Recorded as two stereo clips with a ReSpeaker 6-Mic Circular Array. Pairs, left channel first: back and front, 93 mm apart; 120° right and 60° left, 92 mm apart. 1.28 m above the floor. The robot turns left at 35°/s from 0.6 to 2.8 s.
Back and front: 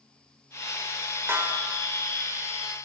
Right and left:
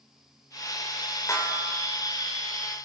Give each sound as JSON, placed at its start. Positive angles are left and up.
{"t": 1.3, "sound": "a snare drum", "azimuth_deg": -65, "distance_m": 6.0}